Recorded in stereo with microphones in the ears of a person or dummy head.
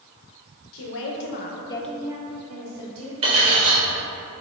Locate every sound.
0.7 s a woman speaking: 80° left, 1.0 m; by 3.1 s 50° right (ahead or behind), 1.3 m
3.2 s cutlery clinking: 30° right (ahead or behind), 1.3 m